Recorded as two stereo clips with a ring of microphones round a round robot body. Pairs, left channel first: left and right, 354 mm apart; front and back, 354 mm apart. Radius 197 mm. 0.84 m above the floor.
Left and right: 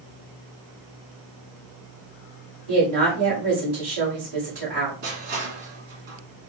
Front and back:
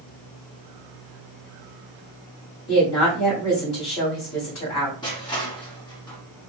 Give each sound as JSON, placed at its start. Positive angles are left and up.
{"t": 2.7, "sound": "a woman speaking", "azimuth_deg": -40, "distance_m": 2.0}
{"t": 5.0, "sound": "crushing", "azimuth_deg": -80, "distance_m": 1.7}